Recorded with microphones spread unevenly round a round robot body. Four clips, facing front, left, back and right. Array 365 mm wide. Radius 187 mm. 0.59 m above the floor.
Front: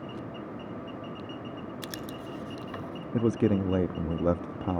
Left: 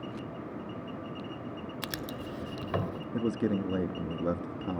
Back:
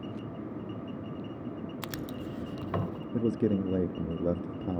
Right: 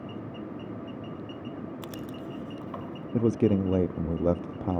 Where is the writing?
135° left, 1.4 m.